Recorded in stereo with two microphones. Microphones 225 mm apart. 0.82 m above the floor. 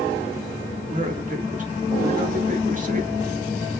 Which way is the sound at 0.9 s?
35° right (ahead or behind).